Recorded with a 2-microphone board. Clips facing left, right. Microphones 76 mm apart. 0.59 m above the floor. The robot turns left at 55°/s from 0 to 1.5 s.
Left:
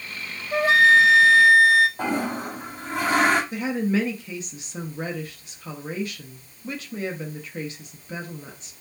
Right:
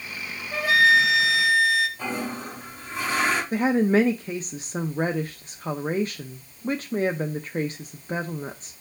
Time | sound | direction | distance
0.5 | a flute | 155° left | 1.0 m
2.0 | a toilet flushing | 65° left (ahead or behind) | 2.5 m
3.5 | a woman speaking | 40° right (ahead or behind) | 0.7 m